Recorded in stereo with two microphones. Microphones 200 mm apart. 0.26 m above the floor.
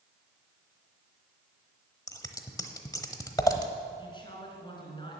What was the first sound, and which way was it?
Scissors, 15° left (ahead or behind).